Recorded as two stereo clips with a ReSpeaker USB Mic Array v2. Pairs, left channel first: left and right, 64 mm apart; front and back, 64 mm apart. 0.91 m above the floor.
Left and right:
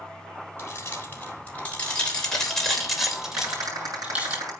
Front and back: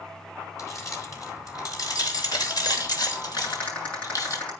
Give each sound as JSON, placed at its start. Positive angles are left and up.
{"t": 0.6, "sound": "keys jangling", "azimuth_deg": 40, "distance_m": 3.5}
{"t": 3.4, "sound": "a rattle", "azimuth_deg": -70, "distance_m": 7.5}